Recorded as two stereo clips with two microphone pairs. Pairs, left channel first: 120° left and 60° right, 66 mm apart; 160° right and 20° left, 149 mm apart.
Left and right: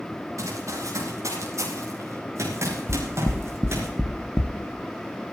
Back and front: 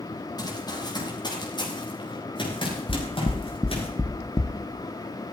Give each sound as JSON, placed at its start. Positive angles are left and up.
{"t": 0.4, "sound": "running footsteps", "azimuth_deg": -95, "distance_m": 7.0}
{"t": 2.9, "sound": "knocking", "azimuth_deg": 170, "distance_m": 0.8}